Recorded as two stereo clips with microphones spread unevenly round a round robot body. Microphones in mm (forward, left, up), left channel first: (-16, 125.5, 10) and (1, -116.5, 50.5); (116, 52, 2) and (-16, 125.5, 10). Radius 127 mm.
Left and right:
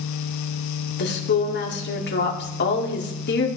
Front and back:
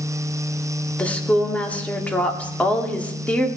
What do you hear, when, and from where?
1.0 s a woman speaking: 50° left, 1.9 m